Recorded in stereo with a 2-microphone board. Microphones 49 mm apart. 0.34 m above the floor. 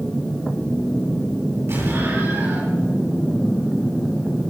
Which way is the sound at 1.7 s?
60° right (ahead or behind).